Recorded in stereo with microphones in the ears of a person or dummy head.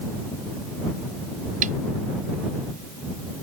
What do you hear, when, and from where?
1.6 s a snare drum: 45° right (ahead or behind)